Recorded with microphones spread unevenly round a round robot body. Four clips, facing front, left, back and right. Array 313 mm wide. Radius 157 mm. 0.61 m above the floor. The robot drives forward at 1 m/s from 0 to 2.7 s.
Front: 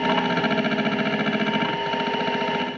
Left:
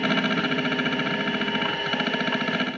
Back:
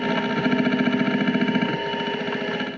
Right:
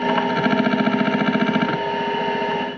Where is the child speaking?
No child speaking in this recording.